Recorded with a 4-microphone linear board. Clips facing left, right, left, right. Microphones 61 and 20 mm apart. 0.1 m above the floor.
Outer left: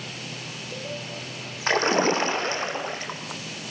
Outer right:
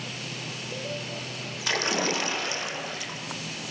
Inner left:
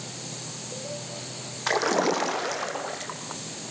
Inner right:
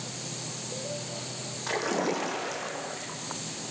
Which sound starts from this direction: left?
A splash, at 1.7 s.